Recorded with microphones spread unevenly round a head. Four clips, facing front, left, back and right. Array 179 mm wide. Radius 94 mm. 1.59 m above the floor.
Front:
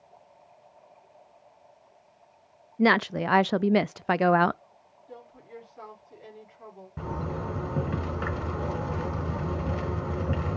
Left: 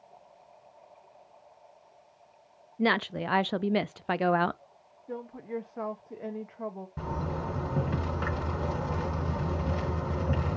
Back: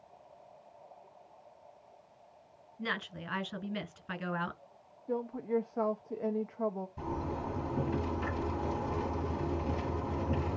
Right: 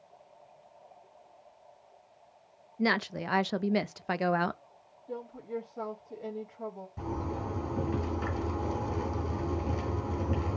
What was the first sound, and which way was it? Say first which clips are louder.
A woman speaking: left 2 dB, front 16 dB; 10° left.